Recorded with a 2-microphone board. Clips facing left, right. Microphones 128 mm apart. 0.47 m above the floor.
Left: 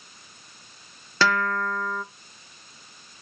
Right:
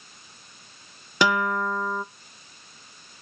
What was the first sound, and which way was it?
A guitar, 15° right (ahead or behind).